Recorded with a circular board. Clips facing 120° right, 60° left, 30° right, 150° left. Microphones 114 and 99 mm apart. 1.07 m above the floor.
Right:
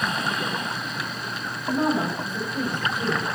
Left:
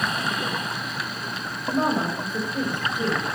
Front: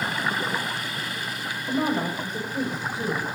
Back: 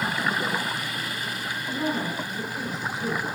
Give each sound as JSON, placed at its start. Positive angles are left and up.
{"t": 1.7, "sound": "a woman speaking", "azimuth_deg": 10, "distance_m": 6.0}